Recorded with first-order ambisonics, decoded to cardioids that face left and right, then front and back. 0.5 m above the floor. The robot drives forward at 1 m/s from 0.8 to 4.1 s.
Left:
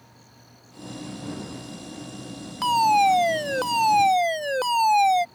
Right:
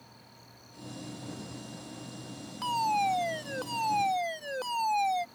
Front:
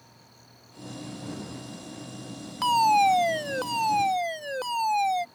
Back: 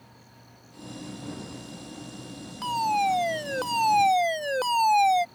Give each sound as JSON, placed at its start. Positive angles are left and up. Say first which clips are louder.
{"t": 2.6, "sound": "a fire alarm", "louder": "left 10 dB, front 5 dB", "azimuth_deg": 50}